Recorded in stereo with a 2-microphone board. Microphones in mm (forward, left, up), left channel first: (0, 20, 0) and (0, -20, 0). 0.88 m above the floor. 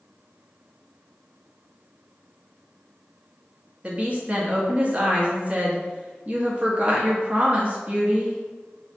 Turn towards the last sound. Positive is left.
turn(degrees=-30)  # may be behind; listen again after turning